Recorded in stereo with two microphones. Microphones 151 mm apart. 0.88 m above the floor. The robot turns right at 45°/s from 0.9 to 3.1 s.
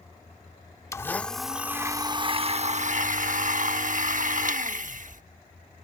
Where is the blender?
160° left; by 5.2 s 105° right.